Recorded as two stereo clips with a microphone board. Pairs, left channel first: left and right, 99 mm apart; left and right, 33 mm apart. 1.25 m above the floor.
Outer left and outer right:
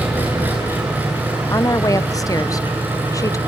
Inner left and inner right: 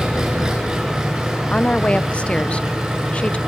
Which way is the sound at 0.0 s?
20° right (ahead or behind).